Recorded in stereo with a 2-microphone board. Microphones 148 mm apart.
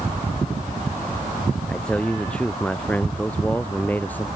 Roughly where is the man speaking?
Centre.